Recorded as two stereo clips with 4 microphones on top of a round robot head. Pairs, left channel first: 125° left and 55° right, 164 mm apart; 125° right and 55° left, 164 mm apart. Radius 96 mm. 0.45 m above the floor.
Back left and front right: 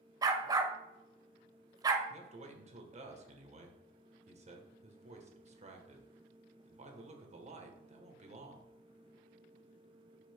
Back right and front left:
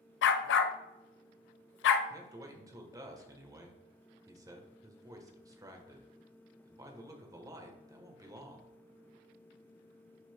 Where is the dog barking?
120° right, 0.6 m.